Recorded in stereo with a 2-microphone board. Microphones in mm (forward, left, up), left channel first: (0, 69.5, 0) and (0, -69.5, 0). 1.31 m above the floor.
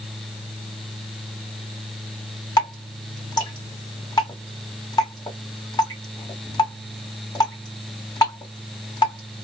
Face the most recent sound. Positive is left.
turn(degrees=25)  # may be behind; listen again after turning